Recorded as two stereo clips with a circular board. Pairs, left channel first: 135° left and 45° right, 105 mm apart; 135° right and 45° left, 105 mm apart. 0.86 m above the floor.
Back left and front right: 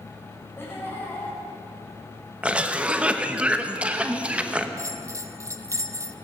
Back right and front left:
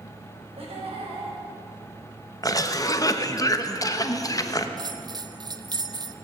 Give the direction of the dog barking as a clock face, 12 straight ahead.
I don't hear a dog barking.